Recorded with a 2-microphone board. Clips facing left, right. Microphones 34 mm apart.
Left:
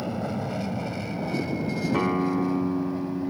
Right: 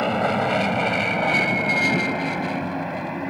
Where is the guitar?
80° left.